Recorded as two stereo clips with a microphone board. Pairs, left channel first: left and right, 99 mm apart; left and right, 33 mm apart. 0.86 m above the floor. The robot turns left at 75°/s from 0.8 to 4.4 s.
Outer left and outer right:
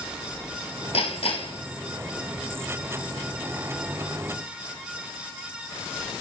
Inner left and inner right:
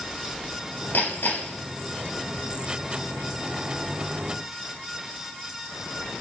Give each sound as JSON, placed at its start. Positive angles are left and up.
{"t": 0.9, "sound": "hammering", "azimuth_deg": 100, "distance_m": 4.0}